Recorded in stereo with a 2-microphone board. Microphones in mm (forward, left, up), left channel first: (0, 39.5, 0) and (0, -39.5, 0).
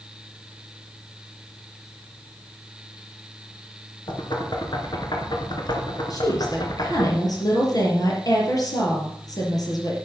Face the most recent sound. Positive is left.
turn(degrees=50)  # may be behind; listen again after turning